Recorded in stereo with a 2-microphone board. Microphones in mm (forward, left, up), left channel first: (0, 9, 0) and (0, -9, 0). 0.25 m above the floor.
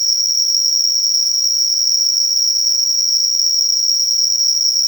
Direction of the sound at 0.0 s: 10° right (ahead or behind).